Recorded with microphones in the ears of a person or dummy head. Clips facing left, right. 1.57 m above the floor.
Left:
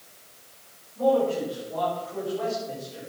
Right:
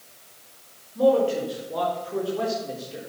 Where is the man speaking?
65° right (ahead or behind), 6 m; by 3.1 s 60° right (ahead or behind), 4 m.